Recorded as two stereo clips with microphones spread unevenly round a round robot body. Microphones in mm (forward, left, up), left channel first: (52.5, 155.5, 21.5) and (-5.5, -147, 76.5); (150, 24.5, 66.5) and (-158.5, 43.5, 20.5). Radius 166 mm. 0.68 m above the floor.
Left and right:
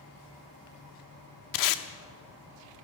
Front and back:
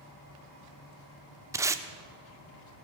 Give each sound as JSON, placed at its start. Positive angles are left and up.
{"t": 1.5, "sound": "tape being pulled", "azimuth_deg": 95, "distance_m": 0.8}